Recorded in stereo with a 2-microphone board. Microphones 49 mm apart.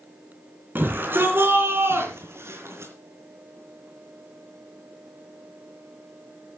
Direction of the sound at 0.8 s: 40° right (ahead or behind).